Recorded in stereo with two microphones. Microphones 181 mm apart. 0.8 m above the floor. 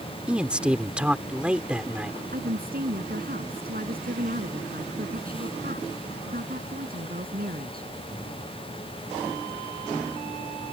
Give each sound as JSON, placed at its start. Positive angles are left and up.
{"t": 0.3, "sound": "a man speaking", "side_deg": -5}
{"t": 2.3, "sound": "a woman speaking", "side_deg": -55}